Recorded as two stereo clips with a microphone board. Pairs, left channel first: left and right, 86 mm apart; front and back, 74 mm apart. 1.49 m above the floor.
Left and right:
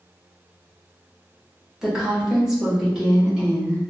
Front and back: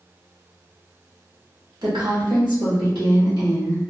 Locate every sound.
1.8 s a woman speaking: 175° right, 1.2 m; by 3.8 s 170° right, 2 m